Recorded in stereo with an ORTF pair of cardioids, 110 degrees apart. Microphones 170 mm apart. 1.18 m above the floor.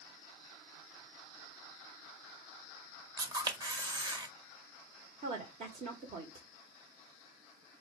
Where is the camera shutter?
25° right, 1.3 m.